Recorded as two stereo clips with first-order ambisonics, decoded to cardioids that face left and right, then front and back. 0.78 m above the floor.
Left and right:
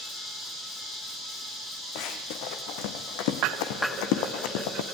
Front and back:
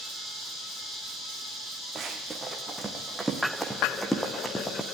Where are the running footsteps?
105° left, 3.5 m; by 4.8 s 80° left, 3 m.